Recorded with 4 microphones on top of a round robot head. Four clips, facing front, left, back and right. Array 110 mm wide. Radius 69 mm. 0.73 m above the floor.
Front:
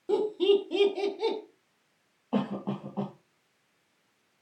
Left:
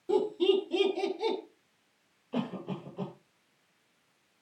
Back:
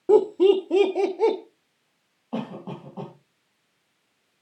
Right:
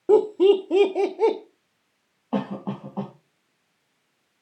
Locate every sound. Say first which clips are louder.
0.1 s laughter: right 10 dB, back 7 dB; 130° right, 2.5 m
2.3 s a cough: right 7 dB, front 2 dB; 85° right, 5 m